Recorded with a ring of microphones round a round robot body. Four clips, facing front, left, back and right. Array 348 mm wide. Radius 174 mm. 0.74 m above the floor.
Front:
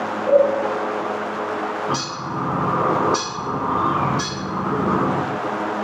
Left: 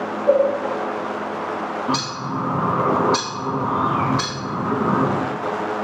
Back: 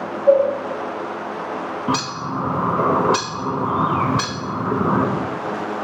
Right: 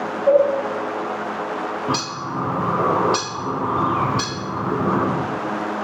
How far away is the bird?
About 0.8 m.